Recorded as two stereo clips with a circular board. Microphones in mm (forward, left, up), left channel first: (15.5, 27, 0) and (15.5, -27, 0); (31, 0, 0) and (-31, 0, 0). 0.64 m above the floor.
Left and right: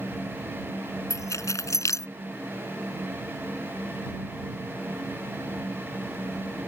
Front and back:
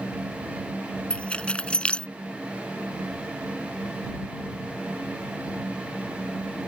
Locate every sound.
1.1 s keys jangling: 70° left